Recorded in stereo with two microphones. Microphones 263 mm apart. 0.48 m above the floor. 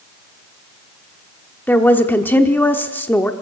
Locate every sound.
1.7 s a woman speaking: 5° left (ahead or behind), 1.0 m